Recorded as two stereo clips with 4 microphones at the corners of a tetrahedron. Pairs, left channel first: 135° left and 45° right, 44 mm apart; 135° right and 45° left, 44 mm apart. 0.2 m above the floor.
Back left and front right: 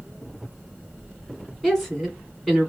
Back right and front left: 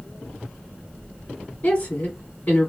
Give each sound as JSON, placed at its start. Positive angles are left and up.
{"t": 1.6, "sound": "a woman speaking", "azimuth_deg": -140, "distance_m": 2.0}